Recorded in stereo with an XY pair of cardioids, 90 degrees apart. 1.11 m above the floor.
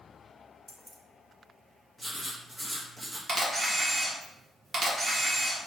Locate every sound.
0.7 s keys jangling: 5° right, 0.7 m
2.0 s writing: 15° right, 1.2 m
3.3 s a camera shutter: 45° right, 1.3 m